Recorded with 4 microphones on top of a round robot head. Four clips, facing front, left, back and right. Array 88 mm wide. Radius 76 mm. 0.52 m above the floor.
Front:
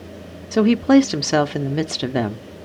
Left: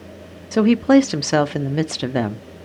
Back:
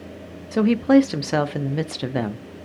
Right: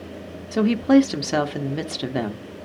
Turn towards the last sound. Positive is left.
turn(degrees=65)